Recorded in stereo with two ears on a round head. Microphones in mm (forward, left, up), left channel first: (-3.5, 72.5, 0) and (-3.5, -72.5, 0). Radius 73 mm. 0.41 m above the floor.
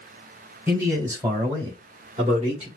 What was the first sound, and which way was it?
A man speaking, 15° right (ahead or behind).